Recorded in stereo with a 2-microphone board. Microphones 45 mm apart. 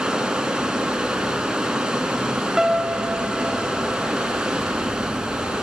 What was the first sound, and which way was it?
Running water, 15° right (ahead or behind).